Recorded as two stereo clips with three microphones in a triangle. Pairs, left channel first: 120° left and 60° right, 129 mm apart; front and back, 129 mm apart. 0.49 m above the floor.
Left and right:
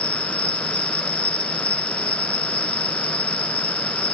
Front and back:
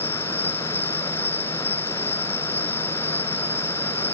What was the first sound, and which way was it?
An insect, 75° left.